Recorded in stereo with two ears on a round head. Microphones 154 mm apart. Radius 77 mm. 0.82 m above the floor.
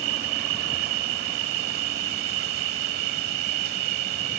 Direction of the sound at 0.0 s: 60° right (ahead or behind).